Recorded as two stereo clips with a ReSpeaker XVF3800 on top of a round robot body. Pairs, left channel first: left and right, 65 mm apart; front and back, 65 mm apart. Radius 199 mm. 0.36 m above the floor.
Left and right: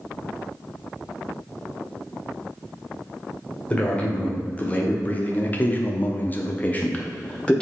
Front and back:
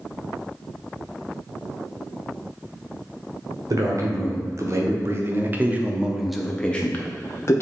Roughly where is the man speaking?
Behind left.